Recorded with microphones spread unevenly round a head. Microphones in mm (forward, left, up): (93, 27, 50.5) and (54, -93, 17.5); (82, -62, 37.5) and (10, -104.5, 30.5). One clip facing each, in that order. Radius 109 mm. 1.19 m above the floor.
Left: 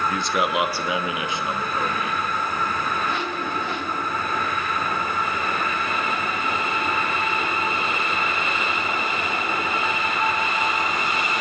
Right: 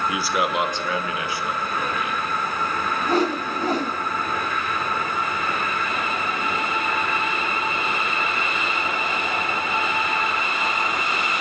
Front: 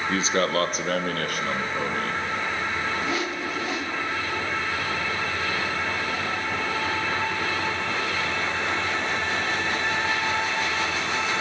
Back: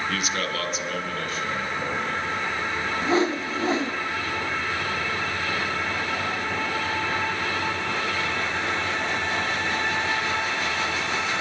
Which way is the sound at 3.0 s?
100° right.